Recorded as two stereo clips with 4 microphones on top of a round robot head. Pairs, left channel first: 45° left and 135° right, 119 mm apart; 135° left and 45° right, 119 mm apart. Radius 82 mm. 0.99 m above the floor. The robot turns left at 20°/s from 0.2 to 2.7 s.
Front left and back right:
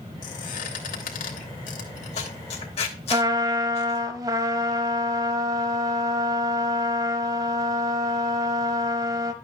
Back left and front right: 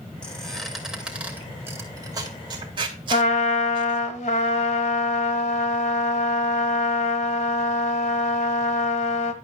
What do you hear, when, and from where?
0.2 s a squeak: 55° left, 2.5 m; by 4.0 s 5° left, 2.5 m
3.1 s a trumpet: 165° left, 1.0 m